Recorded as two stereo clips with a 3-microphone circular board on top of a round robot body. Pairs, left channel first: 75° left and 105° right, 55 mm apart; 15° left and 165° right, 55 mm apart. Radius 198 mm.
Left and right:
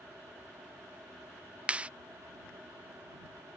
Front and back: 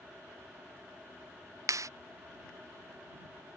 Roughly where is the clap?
Behind.